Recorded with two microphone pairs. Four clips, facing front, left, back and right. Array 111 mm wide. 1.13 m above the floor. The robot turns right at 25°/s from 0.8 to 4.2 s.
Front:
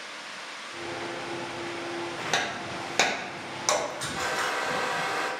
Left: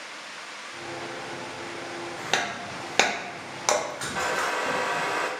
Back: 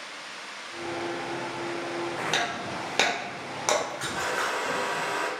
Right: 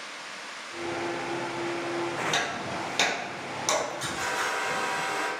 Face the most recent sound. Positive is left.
turn(degrees=110)